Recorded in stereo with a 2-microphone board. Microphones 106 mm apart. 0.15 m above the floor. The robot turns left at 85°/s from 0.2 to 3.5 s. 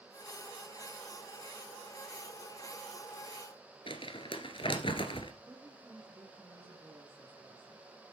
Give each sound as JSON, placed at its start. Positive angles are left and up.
{"t": 3.9, "sound": "crumpling", "side_deg": 60, "distance_m": 1.4}
{"t": 5.5, "sound": "a woman speaking", "side_deg": -20, "distance_m": 2.5}